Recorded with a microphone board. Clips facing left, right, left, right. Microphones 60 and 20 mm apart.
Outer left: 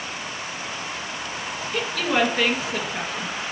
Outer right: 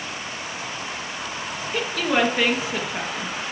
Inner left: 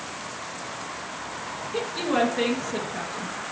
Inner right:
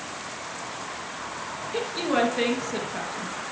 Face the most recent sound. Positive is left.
turn(degrees=-10)  # may be behind; listen again after turning